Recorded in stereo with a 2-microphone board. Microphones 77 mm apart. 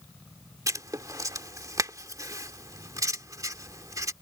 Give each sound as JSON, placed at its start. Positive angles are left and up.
{"t": 0.7, "sound": "writing", "side_deg": -45}